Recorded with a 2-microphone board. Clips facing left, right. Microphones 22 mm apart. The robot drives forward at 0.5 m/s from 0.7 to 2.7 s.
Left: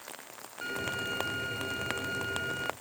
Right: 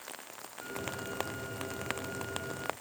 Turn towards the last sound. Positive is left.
turn(degrees=80)